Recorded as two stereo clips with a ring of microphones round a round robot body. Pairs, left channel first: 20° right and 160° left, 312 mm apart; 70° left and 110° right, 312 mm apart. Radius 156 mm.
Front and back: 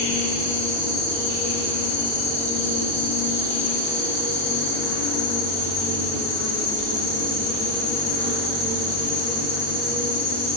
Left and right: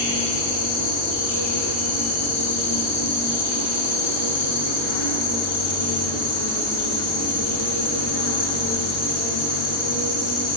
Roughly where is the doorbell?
No doorbell in this recording.